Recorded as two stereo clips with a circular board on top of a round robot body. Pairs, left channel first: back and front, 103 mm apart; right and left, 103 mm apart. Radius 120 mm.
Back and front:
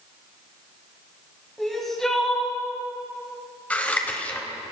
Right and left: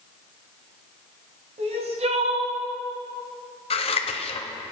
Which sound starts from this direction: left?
Crying, at 1.6 s.